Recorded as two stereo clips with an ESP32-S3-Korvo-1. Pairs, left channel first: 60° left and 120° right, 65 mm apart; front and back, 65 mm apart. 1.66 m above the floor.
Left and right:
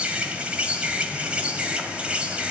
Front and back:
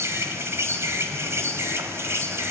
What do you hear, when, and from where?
0.0 s an insect: 175° left, 1.9 m